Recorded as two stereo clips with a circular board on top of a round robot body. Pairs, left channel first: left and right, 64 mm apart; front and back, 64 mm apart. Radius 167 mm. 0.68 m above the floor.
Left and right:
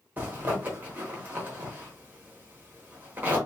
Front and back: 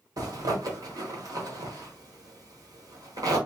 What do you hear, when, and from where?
0.2 s a zipper: 155° right, 1.0 m